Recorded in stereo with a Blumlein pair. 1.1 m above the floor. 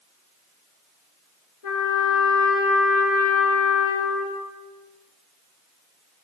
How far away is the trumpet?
About 7 m.